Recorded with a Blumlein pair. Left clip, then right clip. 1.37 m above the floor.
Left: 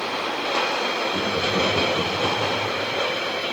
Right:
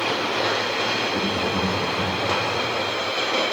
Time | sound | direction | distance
1.1 | laughter | 20° right | 2.5 m